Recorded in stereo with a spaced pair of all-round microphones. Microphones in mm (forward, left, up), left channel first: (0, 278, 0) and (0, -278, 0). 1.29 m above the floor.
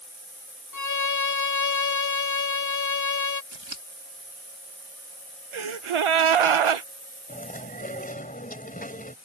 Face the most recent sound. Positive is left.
turn(degrees=15)  # may be behind; listen again after turning